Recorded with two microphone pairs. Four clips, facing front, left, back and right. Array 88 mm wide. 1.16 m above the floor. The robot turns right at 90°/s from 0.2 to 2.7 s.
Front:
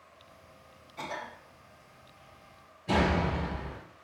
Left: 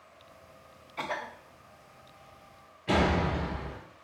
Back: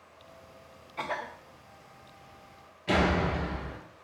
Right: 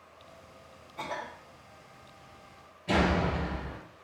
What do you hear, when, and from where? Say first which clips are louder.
1.0 s a cough: left 2 dB, back 4 dB; 130° left, 0.7 m; by 1.3 s 165° left, 0.7 m
2.9 s a door slam: even, back 1 dB; 150° left, 1.5 m